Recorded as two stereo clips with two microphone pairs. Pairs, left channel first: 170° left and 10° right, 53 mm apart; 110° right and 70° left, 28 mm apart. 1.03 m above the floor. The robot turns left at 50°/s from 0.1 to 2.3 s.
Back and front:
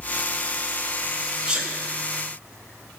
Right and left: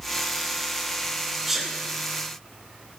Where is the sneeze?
5° left, 0.7 m; by 1.7 s 10° right, 0.7 m.